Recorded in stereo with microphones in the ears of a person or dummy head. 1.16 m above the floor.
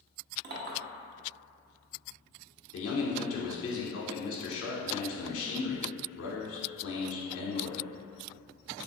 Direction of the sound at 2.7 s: 65° left (ahead or behind).